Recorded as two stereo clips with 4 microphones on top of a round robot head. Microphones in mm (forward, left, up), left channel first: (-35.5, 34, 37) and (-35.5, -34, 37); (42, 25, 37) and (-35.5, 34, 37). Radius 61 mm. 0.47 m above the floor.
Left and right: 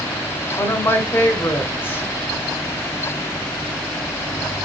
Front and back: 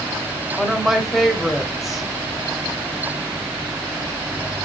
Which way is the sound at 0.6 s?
90° left.